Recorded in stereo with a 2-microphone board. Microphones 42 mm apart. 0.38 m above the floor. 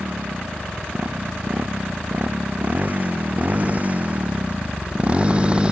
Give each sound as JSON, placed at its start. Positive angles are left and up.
{"t": 0.0, "sound": "a motorcycle", "side_deg": -45}